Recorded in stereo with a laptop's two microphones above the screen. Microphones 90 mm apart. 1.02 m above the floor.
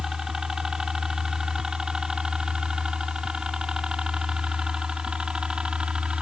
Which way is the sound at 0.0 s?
5° right (ahead or behind).